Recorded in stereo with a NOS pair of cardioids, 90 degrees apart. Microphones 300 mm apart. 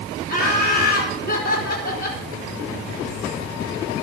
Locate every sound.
0.3 s laughter: 30° left, 5 m